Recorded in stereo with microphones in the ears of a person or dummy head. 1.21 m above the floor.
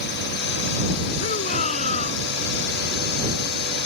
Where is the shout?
45° left (ahead or behind).